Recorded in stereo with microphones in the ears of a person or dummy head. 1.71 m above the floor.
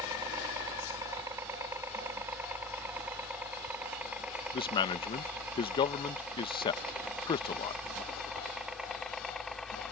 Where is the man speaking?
30° left (ahead or behind).